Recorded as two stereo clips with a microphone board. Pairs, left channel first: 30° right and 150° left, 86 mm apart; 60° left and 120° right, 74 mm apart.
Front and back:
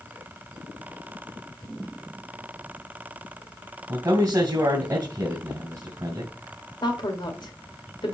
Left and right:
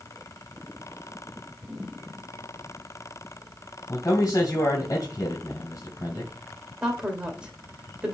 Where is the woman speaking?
40° right, 1.9 m.